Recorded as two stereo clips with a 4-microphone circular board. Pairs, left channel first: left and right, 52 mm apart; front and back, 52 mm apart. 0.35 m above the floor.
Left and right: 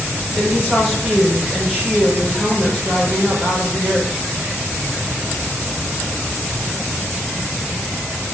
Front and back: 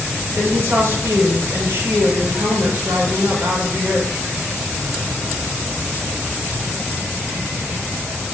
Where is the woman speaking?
145° right, 3.5 m.